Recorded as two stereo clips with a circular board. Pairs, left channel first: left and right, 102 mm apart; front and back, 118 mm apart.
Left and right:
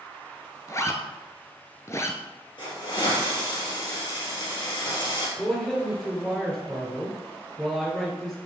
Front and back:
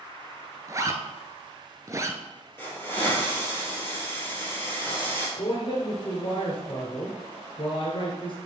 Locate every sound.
0.7 s a zipper: 130° left, 0.7 m
2.6 s a hiss: 65° left, 3 m
5.4 s a man speaking: 5° left, 2 m